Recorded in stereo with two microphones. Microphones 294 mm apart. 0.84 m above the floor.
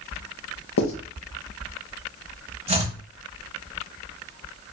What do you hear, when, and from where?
0.8 s writing: 65° left (ahead or behind), 0.9 m
2.7 s chopping: 20° right (ahead or behind), 0.9 m